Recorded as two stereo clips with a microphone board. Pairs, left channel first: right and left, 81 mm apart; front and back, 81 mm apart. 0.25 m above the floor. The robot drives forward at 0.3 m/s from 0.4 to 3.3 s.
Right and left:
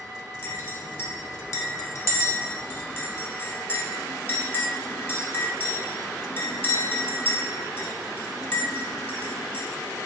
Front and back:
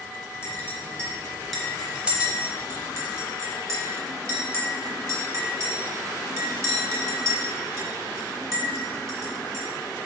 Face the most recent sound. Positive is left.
turn(degrees=-145)